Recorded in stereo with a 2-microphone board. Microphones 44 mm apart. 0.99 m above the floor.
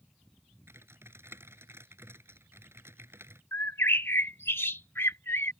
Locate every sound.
0.7 s typing on a keyboard: 75° right (ahead or behind)
3.5 s a bird: 65° left (ahead or behind)